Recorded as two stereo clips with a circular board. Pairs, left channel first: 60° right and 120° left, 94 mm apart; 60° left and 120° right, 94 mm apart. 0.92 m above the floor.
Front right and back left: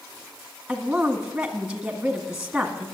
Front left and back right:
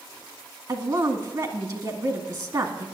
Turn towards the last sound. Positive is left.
turn(degrees=-160)